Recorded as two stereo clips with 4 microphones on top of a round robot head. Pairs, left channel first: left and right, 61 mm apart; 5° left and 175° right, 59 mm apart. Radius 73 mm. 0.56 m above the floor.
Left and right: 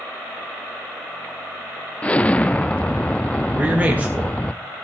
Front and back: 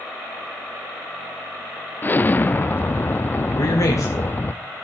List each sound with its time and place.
2.0 s an explosion: 35° left, 0.6 m
3.5 s a man speaking: 25° right, 2.5 m